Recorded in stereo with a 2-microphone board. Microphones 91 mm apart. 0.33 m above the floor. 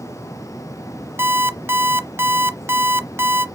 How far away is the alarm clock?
About 0.5 m.